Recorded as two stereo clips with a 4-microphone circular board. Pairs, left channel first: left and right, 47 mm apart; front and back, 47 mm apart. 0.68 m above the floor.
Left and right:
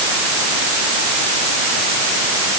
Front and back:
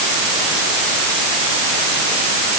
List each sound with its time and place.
Only background noise.